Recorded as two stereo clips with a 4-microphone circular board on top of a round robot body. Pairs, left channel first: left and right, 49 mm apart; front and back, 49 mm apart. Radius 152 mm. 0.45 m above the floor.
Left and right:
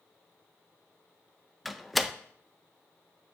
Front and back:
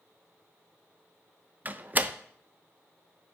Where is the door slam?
Straight behind, 0.6 m.